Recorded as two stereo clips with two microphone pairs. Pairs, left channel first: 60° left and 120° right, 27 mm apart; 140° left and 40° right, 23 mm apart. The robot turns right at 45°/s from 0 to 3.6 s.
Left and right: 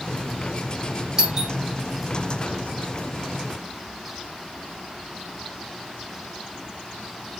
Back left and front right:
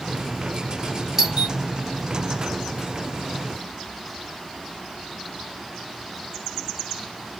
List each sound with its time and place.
1.2 s a doorbell: 80° right, 1.6 m; by 1.5 s 65° right, 1.6 m